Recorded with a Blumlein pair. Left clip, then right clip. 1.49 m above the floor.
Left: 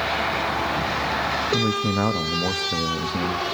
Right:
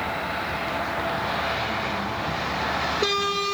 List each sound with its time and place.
1.5 s a man speaking: 50° left, 1.8 m